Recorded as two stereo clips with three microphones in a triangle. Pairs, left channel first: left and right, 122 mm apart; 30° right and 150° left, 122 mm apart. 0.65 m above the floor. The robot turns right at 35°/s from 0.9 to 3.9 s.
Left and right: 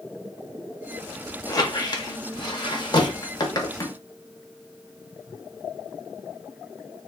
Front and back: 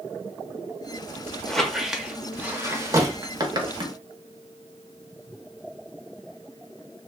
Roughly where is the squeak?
Ahead left.